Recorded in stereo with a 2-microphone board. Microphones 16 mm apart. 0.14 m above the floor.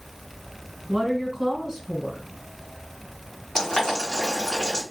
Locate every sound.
0.9 s a woman speaking: 30° right (ahead or behind), 1.5 m
3.5 s boiling: 30° left (ahead or behind), 1.9 m